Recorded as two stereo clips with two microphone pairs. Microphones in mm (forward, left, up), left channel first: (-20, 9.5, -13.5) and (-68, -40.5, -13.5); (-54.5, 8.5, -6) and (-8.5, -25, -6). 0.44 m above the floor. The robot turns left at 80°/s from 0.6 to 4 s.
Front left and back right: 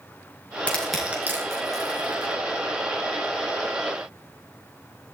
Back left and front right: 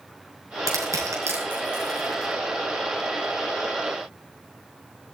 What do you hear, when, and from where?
0.7 s crushing: 25° right, 5 m; by 2.3 s 155° right, 5 m